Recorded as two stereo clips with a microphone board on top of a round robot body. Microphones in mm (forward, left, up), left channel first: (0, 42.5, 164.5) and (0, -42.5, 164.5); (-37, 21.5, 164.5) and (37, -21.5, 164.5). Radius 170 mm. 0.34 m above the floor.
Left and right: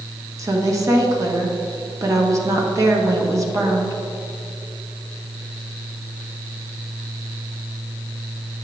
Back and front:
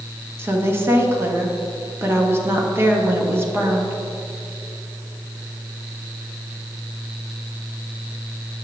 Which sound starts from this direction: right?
A woman speaking, at 0.4 s.